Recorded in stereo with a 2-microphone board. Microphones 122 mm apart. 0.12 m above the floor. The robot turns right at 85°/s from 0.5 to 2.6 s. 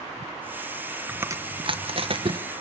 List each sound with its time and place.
1.1 s chewing: 15° right (ahead or behind), 1.1 m; by 2.4 s 35° right (ahead or behind), 1.1 m